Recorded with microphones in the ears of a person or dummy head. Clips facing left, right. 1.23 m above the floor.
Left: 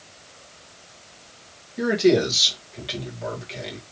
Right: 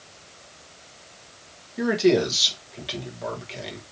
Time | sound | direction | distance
1.8 | a man speaking | 5° right (ahead or behind) | 1.7 m